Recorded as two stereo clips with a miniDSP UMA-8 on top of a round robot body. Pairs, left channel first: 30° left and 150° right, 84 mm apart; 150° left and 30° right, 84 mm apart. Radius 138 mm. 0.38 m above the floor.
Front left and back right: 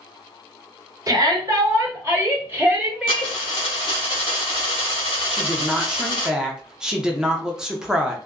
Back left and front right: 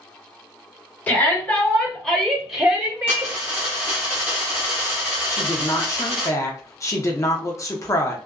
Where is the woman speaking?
135° left, 0.9 m.